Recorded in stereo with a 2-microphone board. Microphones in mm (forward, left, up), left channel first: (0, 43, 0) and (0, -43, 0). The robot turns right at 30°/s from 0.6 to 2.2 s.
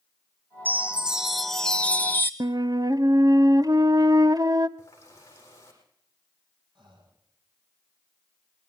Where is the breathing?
65° right (ahead or behind), 5.5 m.